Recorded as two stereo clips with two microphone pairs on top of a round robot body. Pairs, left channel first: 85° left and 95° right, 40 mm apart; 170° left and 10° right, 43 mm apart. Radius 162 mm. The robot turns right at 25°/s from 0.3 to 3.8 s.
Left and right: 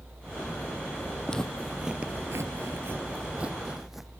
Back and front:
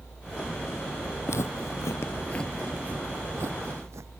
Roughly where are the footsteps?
Behind left.